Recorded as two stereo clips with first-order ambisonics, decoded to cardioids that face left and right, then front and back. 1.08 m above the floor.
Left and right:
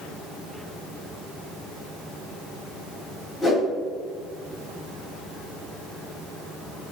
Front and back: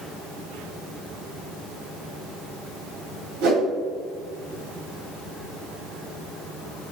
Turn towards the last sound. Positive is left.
turn(degrees=160)